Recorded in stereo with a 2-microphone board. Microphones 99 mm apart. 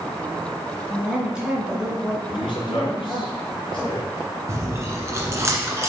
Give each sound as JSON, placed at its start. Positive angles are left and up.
{"t": 0.9, "sound": "a woman speaking", "side_deg": -10, "distance_m": 2.5}
{"t": 2.2, "sound": "a man speaking", "side_deg": 60, "distance_m": 3.0}
{"t": 4.5, "sound": "chewing", "side_deg": -30, "distance_m": 1.6}